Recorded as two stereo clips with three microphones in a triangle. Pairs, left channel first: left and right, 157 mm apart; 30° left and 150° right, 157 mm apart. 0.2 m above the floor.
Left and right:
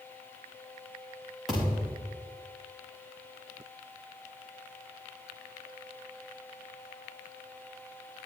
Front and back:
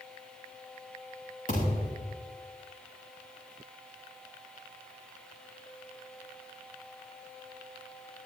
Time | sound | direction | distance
1.5 | a thud | 5° right | 7 m